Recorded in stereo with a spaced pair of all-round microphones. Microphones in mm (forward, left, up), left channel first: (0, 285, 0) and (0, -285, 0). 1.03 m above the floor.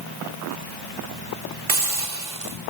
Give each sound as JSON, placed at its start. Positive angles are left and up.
{"t": 1.7, "sound": "a hiss", "side_deg": -70, "distance_m": 1.5}